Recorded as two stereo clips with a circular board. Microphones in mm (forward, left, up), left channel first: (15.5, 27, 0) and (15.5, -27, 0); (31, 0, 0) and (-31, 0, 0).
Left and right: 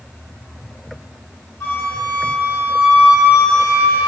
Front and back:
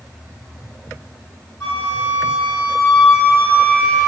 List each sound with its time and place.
1.6 s a flute: 55° left, 1.7 m